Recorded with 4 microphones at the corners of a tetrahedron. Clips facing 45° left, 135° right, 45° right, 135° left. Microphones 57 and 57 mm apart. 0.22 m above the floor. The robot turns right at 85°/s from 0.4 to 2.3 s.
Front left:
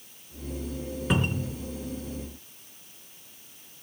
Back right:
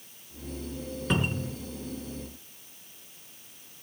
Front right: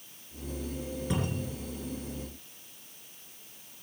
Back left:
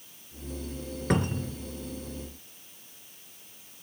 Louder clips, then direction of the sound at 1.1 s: Front left 1 dB, back left 7 dB; 125° left.